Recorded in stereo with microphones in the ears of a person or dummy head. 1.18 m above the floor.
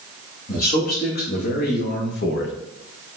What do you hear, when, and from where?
0.5 s a man speaking: 50° left (ahead or behind), 3 m; by 2.6 s 60° left (ahead or behind), 1.6 m